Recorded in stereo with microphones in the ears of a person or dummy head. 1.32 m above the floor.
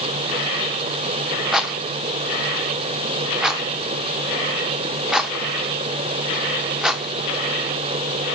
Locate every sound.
1.5 s a rattle: centre (ahead or behind), 0.7 m